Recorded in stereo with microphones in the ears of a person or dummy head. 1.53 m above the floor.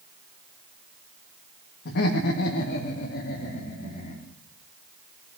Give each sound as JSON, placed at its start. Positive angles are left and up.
{"t": 1.9, "sound": "laughter", "side_deg": 65, "distance_m": 2.0}